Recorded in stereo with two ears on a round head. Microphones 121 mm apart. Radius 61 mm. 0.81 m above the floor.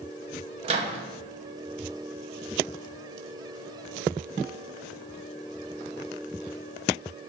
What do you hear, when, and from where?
0.6 s a microwave: 45° right (ahead or behind), 0.5 m